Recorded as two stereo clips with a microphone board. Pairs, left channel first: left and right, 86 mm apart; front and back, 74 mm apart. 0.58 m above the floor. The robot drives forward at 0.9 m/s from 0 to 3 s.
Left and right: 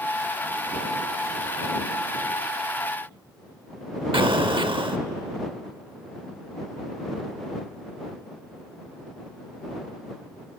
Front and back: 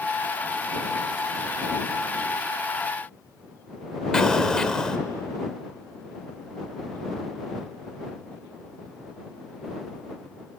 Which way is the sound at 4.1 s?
80° right.